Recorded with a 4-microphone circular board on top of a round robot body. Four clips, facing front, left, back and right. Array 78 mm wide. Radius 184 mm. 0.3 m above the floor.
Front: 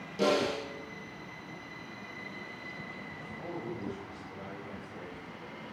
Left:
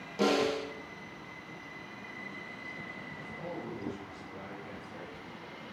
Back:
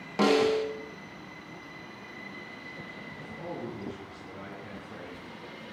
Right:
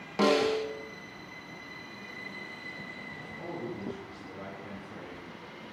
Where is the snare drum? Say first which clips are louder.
Right 3 dB, back 5 dB; 140° right, 3.5 m.